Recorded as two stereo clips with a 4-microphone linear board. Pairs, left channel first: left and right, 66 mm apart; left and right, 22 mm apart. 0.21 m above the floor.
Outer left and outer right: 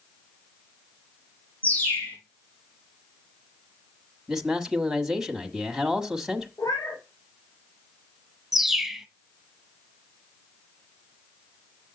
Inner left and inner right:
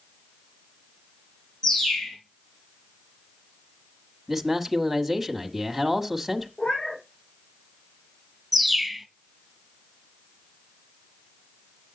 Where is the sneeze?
No sneeze in this recording.